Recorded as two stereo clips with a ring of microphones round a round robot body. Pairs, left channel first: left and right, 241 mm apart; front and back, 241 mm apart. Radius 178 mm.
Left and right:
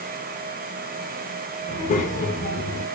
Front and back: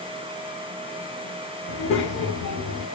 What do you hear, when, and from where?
1.7 s a child speaking: 30° left, 0.7 m